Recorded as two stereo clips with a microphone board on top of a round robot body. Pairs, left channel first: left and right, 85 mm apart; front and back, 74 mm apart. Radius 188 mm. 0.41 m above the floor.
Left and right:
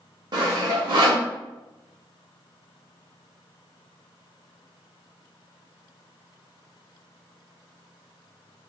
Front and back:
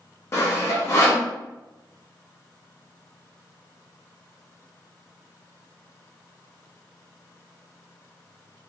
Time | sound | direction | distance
0.3 | sawing | 55° right | 0.7 m